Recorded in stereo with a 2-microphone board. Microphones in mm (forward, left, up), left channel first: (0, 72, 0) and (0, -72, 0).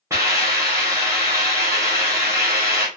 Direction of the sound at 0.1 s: 20° right (ahead or behind).